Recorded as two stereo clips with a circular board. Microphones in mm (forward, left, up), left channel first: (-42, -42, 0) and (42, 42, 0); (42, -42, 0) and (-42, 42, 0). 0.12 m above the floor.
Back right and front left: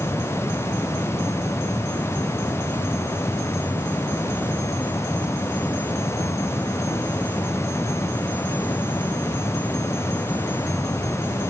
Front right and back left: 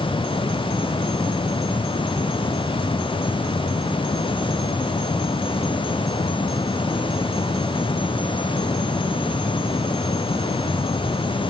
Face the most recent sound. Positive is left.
No sound to turn to.